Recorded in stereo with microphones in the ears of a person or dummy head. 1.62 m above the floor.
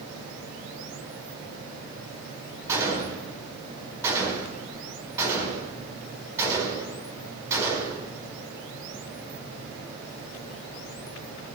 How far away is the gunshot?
About 5 m.